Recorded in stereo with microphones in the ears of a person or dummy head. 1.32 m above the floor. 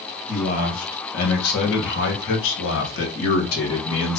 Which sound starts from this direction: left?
A man speaking, at 0.3 s.